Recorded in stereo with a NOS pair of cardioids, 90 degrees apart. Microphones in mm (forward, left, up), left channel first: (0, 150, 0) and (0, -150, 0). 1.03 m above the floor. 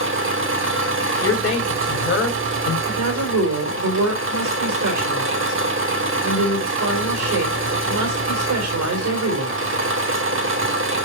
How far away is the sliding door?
I don't hear a sliding door.